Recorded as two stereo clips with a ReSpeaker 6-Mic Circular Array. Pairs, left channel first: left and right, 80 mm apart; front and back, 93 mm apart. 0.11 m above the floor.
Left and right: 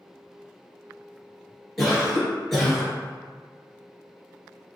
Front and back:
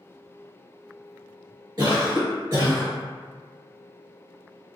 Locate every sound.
1.8 s a cough: 175° left, 1.6 m